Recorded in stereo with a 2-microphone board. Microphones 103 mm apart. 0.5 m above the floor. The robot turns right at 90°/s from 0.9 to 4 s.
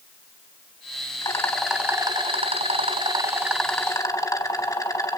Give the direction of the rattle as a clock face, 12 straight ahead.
7 o'clock.